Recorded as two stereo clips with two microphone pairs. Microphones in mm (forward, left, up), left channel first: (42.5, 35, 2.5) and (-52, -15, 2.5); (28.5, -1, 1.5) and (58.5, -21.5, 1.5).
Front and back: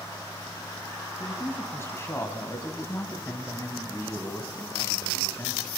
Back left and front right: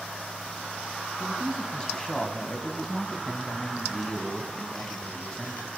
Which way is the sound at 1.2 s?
80° left.